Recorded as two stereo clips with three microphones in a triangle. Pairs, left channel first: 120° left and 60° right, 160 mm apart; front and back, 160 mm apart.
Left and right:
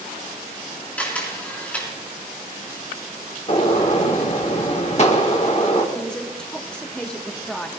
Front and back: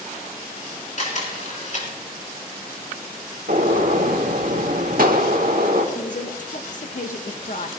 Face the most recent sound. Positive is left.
turn(degrees=35)